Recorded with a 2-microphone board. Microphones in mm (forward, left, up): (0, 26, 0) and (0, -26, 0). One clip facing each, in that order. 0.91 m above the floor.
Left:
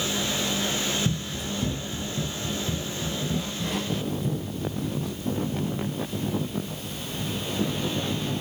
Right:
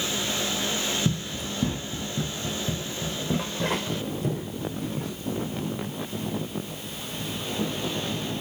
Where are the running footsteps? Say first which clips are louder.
Right 1 dB; 50° right (ahead or behind), 3 m; by 5.1 s 75° right (ahead or behind), 6.5 m.